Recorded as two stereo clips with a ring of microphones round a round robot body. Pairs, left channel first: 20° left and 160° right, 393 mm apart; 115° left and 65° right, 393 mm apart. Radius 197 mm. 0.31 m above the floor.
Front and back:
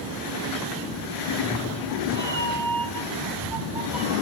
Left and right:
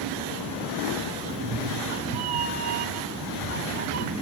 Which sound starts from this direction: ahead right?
A cat meowing, at 1.3 s.